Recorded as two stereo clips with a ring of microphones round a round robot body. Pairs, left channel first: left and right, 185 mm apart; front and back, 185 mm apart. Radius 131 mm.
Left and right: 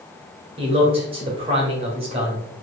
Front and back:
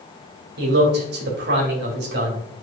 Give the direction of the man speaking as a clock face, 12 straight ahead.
5 o'clock.